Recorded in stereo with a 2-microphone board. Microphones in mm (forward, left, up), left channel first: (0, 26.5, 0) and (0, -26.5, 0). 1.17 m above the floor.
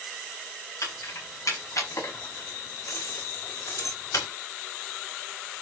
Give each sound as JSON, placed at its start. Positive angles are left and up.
{"t": 0.8, "sound": "keys jangling", "side_deg": 75, "distance_m": 6.5}